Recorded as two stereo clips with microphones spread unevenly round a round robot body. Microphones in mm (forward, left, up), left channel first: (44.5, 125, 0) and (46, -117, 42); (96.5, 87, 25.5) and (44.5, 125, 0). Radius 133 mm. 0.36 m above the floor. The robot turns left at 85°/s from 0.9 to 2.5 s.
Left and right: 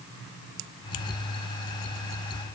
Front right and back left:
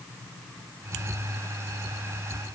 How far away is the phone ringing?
I don't hear a phone ringing.